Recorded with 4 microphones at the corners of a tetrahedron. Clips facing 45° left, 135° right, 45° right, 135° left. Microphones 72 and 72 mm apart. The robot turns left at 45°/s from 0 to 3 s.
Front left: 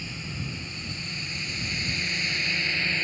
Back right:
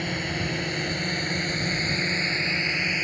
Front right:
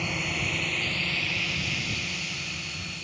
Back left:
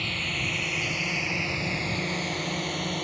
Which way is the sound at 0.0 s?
115° right.